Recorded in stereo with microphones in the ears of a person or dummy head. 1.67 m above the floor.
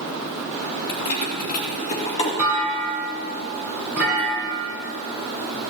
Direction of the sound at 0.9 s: 55° left (ahead or behind).